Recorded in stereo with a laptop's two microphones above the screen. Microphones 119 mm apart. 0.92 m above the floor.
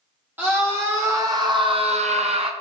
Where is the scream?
15° right (ahead or behind), 2 m; by 2.5 s 50° right (ahead or behind), 0.7 m.